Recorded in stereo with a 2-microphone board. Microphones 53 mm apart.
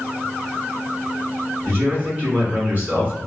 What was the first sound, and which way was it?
A man speaking, 35° right (ahead or behind).